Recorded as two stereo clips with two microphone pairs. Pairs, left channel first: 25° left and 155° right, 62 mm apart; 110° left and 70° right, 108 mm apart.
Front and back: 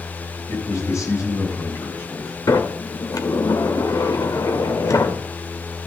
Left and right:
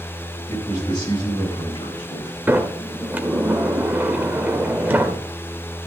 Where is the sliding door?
5° left, 1.6 m.